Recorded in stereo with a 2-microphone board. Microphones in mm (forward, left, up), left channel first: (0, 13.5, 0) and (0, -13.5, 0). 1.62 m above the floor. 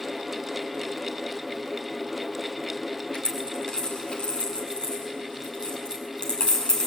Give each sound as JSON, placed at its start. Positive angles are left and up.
{"t": 3.1, "sound": "a dropped coin", "side_deg": 35, "distance_m": 6.0}